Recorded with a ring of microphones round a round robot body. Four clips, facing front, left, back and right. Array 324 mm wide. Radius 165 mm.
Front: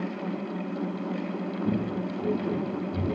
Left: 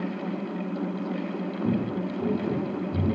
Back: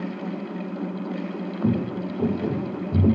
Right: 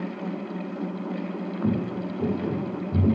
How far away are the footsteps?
About 2.5 m.